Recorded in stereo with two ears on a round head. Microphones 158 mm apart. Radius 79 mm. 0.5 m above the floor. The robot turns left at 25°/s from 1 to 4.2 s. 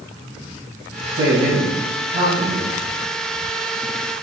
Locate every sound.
1.1 s a man speaking: 120° right, 3 m; by 2.8 s 160° right, 3 m